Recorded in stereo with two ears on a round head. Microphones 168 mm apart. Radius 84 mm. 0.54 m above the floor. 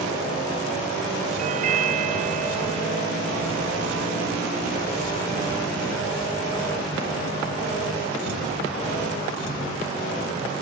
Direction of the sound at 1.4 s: 40° right (ahead or behind).